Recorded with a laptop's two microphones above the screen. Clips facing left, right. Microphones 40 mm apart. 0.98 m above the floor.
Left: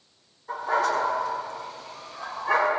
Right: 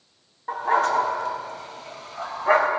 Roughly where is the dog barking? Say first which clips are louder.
Right 3 dB; right.